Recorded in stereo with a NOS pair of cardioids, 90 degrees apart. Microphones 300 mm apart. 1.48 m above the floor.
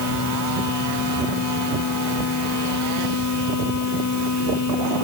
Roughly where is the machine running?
Ahead left.